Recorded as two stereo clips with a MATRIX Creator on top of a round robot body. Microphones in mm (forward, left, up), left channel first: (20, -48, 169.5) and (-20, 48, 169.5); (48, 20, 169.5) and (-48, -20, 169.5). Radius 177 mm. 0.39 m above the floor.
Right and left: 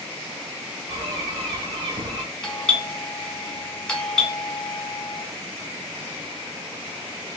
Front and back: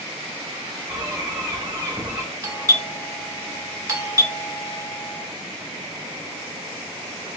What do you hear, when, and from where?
0.9 s a bird: 140° left, 2 m
2.4 s a doorbell: 145° right, 1.9 m